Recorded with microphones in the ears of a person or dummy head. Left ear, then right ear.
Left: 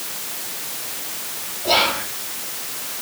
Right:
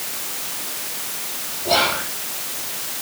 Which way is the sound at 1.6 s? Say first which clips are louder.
Left 1 dB; 40° left (ahead or behind).